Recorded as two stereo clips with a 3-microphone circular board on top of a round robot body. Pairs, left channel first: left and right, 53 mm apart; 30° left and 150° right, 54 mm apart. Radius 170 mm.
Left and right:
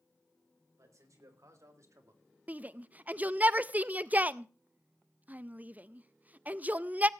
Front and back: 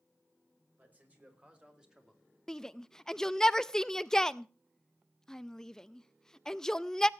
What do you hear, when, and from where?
0.8 s a man speaking: 95° right, 4.5 m; by 2.2 s 70° right, 3 m
2.5 s a shout: 45° right, 0.7 m